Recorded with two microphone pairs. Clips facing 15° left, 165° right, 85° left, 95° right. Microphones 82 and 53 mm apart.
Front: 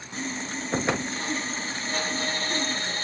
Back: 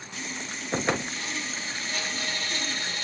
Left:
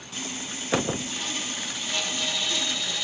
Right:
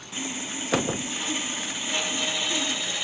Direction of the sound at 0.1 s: 30° right.